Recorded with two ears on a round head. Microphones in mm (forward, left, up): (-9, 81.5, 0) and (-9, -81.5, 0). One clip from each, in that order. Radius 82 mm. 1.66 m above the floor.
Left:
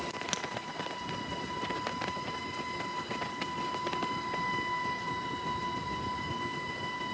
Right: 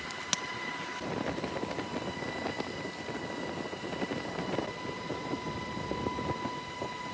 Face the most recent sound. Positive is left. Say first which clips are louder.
# right 1 dB
turn(degrees=-20)  # may be behind; listen again after turning